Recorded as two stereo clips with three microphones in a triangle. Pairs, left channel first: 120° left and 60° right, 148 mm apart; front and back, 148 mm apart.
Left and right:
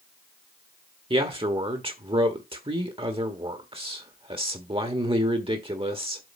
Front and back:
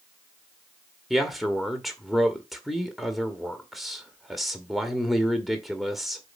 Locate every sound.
1.1 s a man speaking: 90° right, 1.4 m